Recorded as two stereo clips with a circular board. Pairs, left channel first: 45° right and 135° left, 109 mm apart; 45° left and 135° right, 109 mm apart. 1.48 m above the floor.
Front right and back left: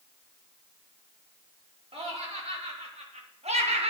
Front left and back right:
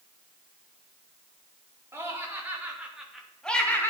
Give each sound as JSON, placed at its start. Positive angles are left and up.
{"t": 1.9, "sound": "laughter", "azimuth_deg": 160, "distance_m": 3.5}